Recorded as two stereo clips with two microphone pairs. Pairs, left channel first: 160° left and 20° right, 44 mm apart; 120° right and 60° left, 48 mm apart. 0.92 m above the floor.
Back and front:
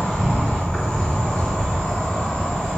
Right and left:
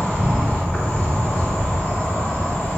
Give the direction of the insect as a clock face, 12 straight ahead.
5 o'clock.